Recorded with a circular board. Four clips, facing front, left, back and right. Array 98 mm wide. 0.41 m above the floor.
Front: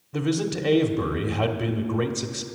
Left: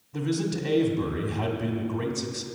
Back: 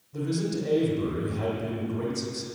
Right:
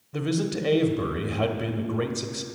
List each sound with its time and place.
0.1 s a man speaking: 35° right, 1.4 m